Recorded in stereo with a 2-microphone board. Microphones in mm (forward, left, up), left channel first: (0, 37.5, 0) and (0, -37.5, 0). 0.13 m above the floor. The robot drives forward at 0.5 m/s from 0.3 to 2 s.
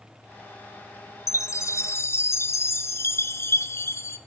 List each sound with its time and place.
1.3 s a chime: 40° left (ahead or behind), 0.6 m; by 4.2 s 35° left (ahead or behind), 0.6 m